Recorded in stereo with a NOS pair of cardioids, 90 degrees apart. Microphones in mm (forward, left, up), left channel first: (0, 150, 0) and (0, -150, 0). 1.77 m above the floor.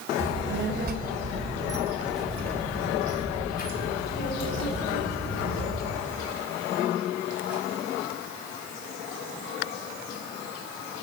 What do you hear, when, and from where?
0.2 s a child speaking: 45° right, 2.5 m; by 6.0 s 55° left, 4.5 m